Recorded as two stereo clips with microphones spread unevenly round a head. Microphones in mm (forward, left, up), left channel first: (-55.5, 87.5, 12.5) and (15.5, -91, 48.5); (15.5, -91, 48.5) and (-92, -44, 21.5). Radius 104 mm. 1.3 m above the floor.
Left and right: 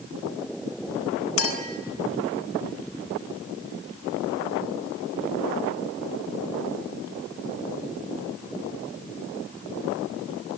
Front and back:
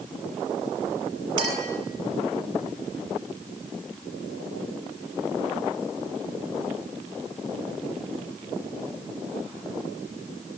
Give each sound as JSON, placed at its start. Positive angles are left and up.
{"t": 1.4, "sound": "a clink", "azimuth_deg": 85, "distance_m": 4.5}